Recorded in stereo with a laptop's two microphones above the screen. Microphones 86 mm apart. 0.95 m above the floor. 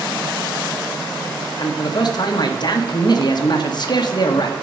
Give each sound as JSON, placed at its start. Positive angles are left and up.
{"t": 1.6, "sound": "a man speaking", "side_deg": 50, "distance_m": 0.8}